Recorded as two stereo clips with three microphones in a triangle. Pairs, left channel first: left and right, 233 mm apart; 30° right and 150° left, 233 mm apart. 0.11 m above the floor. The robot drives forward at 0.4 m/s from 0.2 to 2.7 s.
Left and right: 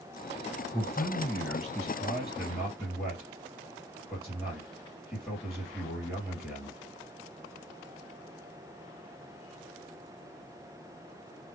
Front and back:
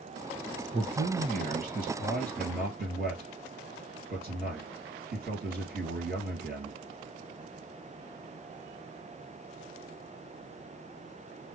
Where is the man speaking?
Straight behind, 1.6 m.